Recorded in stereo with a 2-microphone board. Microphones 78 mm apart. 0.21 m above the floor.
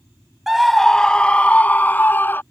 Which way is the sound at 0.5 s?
5° right (ahead or behind).